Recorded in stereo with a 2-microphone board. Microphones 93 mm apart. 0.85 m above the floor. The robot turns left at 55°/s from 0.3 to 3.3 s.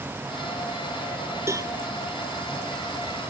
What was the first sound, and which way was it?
A cowbell, 30° right (ahead or behind).